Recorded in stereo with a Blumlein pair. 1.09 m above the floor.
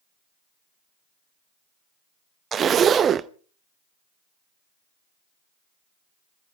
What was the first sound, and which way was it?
A zipper, 25° right.